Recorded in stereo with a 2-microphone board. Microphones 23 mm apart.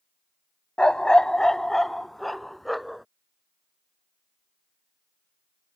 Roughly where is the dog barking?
Left.